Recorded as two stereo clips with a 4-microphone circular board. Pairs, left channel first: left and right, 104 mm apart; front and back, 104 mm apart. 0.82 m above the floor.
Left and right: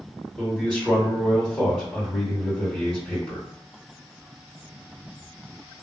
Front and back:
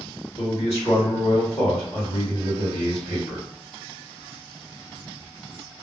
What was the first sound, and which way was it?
A man speaking, 10° left.